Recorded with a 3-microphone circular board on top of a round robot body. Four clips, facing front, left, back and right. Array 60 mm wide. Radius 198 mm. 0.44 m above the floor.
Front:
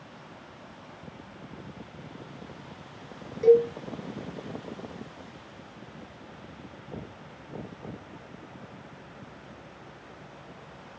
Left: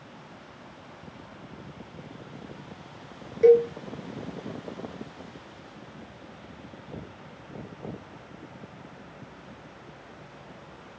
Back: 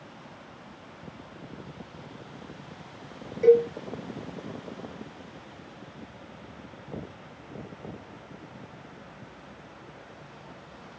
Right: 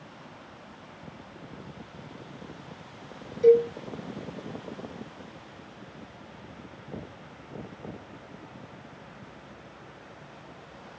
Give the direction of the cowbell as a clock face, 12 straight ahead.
9 o'clock.